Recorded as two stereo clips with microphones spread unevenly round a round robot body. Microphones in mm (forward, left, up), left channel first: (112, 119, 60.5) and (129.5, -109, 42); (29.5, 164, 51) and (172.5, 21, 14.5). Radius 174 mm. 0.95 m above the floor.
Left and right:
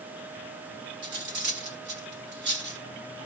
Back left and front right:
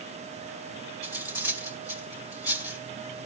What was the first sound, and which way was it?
Cutlery clinking, 145° right.